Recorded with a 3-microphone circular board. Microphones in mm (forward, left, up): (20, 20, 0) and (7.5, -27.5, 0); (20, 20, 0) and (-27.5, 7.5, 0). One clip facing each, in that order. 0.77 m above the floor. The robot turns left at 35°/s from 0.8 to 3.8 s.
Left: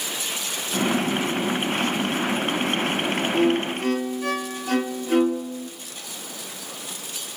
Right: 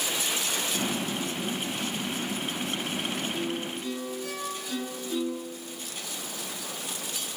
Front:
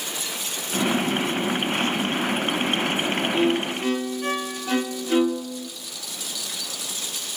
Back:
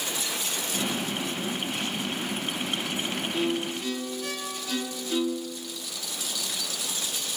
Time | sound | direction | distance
3.3 | a violin | 80° left | 1.5 m